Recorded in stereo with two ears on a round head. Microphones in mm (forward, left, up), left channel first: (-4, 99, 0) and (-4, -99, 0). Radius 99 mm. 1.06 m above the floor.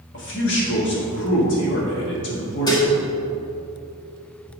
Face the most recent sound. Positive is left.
turn(degrees=20)  # may be behind; listen again after turning